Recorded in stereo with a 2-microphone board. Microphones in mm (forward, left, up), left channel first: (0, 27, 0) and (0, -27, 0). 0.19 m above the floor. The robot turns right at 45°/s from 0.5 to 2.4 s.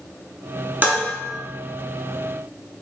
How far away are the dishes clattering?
About 1.4 m.